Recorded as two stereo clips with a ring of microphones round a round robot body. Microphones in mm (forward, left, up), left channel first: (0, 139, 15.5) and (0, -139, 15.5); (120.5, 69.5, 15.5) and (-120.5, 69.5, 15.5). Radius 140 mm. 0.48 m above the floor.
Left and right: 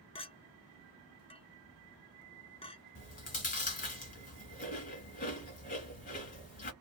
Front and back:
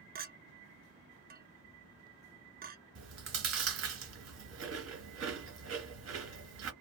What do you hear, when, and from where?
0.1 s a clink: 150° left, 0.6 m
3.0 s chewing: 155° left, 1.5 m